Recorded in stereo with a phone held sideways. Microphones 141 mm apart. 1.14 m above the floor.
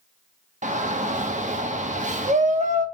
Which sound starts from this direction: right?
A shout, at 0.6 s.